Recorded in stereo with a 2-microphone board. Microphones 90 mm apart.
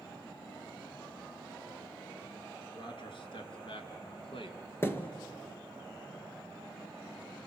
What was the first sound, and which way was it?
A man speaking, 60° left (ahead or behind).